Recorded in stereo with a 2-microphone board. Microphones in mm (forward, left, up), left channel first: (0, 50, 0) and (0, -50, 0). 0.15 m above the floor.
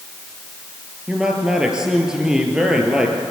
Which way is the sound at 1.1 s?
5° right (ahead or behind).